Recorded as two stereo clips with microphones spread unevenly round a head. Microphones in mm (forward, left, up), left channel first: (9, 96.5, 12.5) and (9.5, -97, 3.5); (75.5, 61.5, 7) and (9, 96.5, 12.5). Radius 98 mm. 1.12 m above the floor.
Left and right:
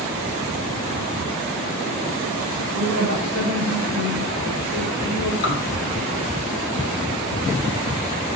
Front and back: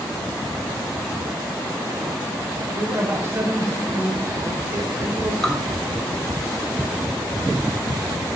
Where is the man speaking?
100° left, 5 m; by 5.6 s 95° left, 3 m.